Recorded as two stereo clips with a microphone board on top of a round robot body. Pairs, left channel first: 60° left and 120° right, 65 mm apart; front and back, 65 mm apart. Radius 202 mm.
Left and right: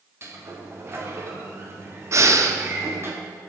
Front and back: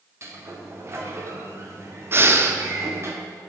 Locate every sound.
0.2 s a sliding door: 155° right, 1.5 m
2.1 s breathing: 140° right, 0.9 m